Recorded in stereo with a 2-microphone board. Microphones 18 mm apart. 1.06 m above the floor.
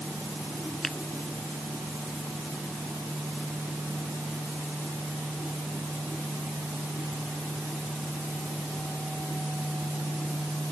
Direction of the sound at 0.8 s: 15° left (ahead or behind).